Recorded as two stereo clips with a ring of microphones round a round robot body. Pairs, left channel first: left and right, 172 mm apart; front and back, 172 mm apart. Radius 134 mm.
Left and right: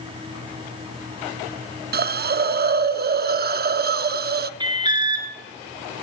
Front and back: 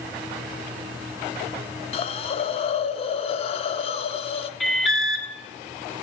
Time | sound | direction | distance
1.9 | a hiss | 60° right | 0.5 m
4.6 | an alarm | 85° right | 1.9 m